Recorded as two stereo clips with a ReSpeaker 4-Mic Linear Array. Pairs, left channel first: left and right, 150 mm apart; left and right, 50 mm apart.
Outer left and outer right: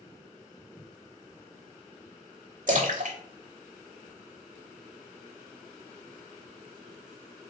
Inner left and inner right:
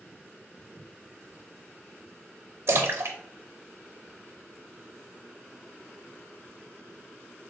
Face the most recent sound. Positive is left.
turn(degrees=-60)  # may be behind; listen again after turning